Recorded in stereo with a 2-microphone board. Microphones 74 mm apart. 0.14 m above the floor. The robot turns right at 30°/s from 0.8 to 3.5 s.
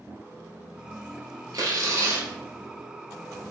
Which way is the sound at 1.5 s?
55° right (ahead or behind).